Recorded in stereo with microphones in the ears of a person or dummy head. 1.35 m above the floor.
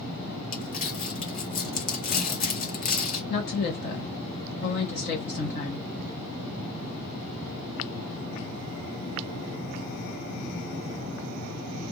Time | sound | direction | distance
0.5 | crumpling | 40° left (ahead or behind) | 0.9 m
3.3 | a woman speaking | 50° left (ahead or behind) | 1.3 m